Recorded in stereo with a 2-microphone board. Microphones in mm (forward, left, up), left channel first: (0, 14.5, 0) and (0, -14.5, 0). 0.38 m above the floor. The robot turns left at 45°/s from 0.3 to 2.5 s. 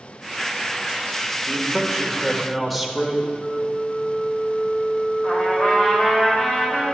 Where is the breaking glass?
No breaking glass in this recording.